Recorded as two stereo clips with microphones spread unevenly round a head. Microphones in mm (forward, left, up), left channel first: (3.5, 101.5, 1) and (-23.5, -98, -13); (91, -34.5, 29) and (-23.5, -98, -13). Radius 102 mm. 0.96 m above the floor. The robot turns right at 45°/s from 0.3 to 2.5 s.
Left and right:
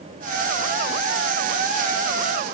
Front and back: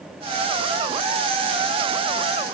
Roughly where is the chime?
No chime in this recording.